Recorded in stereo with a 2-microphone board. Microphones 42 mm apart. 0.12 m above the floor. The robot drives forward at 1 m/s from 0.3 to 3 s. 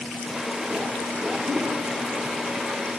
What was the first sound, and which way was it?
A whoosh, 25° right (ahead or behind).